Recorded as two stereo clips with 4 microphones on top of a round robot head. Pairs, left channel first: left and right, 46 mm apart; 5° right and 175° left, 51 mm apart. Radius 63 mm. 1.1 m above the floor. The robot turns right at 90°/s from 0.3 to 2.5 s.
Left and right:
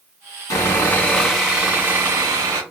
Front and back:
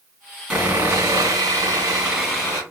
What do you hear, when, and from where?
0.5 s sawing: 105° left, 1.9 m; by 2.6 s 75° right, 1.9 m